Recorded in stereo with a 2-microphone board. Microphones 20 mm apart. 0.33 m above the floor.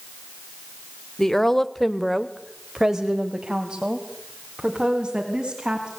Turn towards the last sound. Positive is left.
turn(degrees=-35)  # may be behind; listen again after turning